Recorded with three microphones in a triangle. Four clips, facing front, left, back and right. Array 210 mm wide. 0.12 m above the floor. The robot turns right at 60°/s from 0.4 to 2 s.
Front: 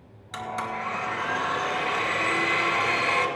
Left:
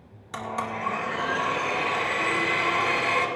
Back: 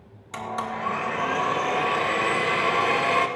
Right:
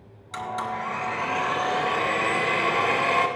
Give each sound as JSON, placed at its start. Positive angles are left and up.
{"t": 0.3, "sound": "a blender", "azimuth_deg": 115, "distance_m": 2.5}